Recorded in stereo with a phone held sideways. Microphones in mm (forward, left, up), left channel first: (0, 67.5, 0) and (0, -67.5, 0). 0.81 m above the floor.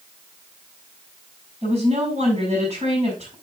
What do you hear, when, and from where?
1.6 s a woman speaking: 45° right (ahead or behind), 5.5 m